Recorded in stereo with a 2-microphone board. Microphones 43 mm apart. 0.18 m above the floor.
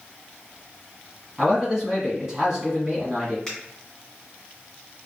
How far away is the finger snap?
About 1.8 m.